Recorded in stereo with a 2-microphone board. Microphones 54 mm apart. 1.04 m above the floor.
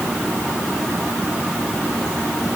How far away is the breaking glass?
No breaking glass in this recording.